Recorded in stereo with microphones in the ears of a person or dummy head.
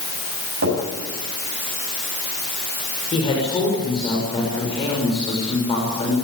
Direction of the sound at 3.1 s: 30° left (ahead or behind).